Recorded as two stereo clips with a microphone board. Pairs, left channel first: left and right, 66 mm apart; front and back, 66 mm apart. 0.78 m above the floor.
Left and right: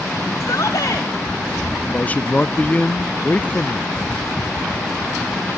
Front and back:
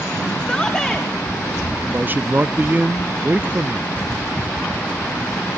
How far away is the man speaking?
About 0.6 m.